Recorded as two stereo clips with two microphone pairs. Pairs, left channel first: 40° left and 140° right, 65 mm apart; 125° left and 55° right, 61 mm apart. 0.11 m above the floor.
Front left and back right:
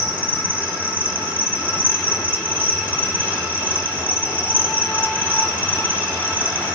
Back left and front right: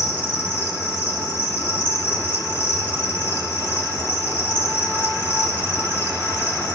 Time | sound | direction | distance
0.0 | an insect | 95° right | 2.5 m